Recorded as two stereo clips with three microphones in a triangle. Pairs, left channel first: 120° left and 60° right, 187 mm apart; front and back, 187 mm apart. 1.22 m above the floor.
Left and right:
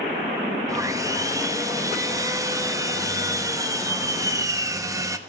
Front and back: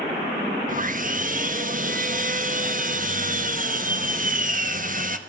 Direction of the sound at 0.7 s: 135° right.